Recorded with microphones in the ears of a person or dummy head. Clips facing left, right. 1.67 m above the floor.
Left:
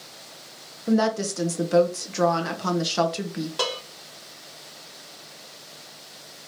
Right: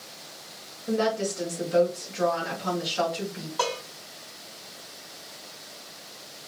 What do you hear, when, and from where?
0.9 s a woman speaking: 70° left (ahead or behind), 1.1 m
3.6 s dishes clattering: 45° left (ahead or behind), 1.2 m